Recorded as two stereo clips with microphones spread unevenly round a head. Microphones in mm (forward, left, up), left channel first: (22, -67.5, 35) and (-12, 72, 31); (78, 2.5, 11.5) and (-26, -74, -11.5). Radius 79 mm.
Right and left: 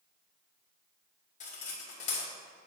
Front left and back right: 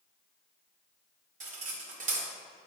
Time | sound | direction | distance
1.4 | cutlery clinking | 120° right | 1.9 m